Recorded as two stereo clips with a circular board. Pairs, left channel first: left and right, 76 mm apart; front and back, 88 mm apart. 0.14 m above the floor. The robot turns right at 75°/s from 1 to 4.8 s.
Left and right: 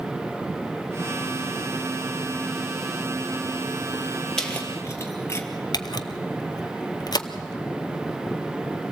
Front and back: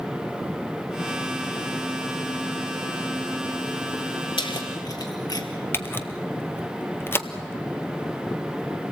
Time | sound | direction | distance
4.4 | keys jangling | 10° left | 2.0 m
5.7 | a camera shutter | 65° left | 0.9 m